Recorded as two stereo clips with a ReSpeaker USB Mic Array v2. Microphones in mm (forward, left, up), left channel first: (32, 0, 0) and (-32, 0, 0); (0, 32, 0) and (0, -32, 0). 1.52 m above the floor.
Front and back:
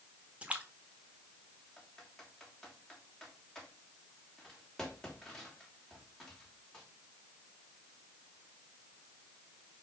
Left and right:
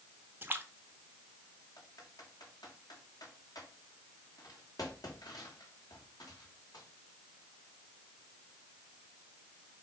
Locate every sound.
0.4 s a splash: 120° right, 1.3 m
1.8 s typing on a keyboard: 80° left, 3 m